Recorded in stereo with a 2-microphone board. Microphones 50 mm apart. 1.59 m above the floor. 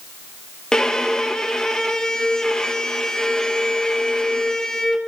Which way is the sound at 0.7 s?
15° left (ahead or behind).